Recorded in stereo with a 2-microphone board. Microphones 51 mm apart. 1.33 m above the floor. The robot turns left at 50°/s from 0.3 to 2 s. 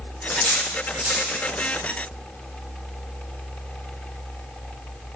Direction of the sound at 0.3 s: 15° left (ahead or behind).